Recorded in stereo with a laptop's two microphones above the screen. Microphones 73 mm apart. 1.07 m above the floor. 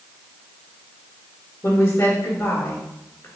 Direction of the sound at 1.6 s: 35° left (ahead or behind).